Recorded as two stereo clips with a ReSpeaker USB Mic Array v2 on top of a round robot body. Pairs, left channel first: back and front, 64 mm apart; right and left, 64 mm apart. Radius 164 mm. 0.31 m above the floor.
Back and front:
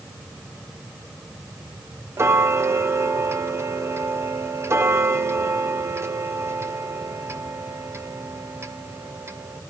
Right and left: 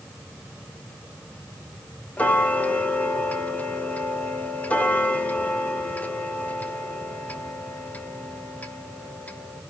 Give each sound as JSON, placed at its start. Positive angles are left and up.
{"t": 2.2, "sound": "ticking", "azimuth_deg": -30, "distance_m": 1.8}